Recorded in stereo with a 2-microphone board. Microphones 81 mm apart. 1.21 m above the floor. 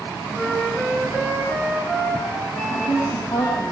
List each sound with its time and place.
0.3 s a flute: 10° left (ahead or behind), 8 m
2.7 s a woman speaking: 55° left (ahead or behind), 8.5 m